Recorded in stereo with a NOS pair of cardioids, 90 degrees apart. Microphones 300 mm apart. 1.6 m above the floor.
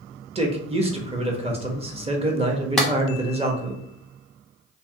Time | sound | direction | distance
0.3 | a man speaking | 20° right | 0.8 m
2.8 | a clap | straight ahead | 0.7 m